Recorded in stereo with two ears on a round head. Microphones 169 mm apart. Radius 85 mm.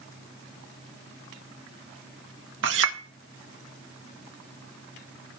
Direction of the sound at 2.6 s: 70° right (ahead or behind).